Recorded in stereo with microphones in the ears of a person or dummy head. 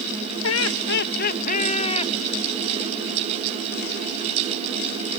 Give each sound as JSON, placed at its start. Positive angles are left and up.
{"t": 0.4, "sound": "laughter", "side_deg": 70}